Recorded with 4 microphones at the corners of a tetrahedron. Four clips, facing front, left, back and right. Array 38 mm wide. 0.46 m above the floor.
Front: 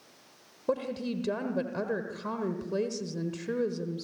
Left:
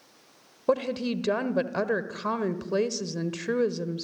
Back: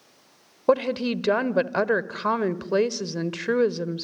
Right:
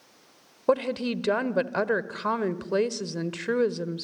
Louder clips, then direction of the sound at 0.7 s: Right 1 dB, back 10 dB; 165° right.